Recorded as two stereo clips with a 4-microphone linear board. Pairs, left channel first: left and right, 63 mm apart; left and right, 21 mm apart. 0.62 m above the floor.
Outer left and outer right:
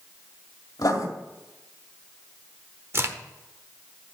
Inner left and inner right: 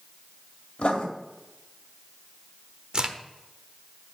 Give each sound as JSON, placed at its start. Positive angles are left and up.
{"t": 0.8, "sound": "writing", "side_deg": 70, "distance_m": 1.8}
{"t": 2.9, "sound": "a crack", "side_deg": -40, "distance_m": 1.0}